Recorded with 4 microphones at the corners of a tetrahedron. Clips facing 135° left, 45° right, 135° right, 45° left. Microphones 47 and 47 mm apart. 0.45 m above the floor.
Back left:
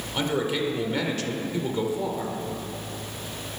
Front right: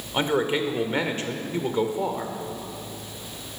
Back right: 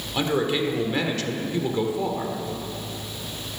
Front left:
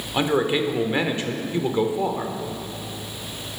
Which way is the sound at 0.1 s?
10° right.